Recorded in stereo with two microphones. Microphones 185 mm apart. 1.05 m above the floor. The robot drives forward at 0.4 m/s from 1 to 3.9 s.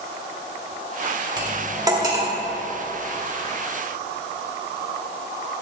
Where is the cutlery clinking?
25° right (ahead or behind), 1.1 m; by 2.3 s 20° right (ahead or behind), 1.5 m.